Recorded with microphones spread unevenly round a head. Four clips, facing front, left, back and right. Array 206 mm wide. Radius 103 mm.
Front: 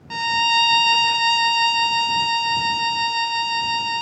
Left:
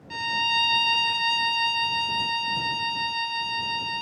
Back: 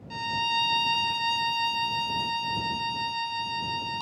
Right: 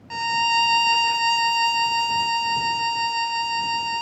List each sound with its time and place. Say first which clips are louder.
0.1 s a violin: right 6 dB, front 8 dB; 25° right